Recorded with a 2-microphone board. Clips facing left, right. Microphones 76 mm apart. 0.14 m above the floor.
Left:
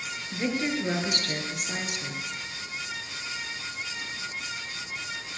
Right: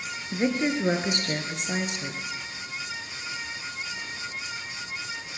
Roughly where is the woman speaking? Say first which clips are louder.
Right 3 dB; right.